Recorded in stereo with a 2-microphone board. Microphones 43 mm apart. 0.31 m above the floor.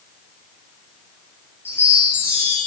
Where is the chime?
60° left (ahead or behind), 3.5 m.